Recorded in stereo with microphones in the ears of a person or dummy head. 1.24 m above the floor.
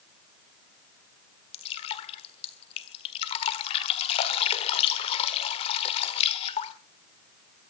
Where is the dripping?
35° left (ahead or behind), 1.5 m.